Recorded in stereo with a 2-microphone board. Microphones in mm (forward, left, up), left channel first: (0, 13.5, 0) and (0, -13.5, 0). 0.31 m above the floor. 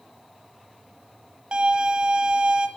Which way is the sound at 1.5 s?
40° right (ahead or behind).